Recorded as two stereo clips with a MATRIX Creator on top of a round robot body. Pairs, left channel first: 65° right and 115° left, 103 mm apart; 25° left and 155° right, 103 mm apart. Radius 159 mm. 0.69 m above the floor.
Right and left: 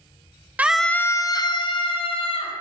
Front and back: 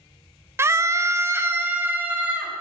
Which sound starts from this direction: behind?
A scream, at 0.6 s.